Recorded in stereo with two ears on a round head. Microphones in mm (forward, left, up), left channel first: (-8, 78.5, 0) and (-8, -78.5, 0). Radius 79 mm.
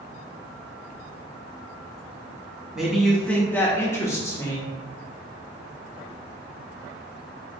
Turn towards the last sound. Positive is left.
turn(degrees=20)  # may be behind; listen again after turning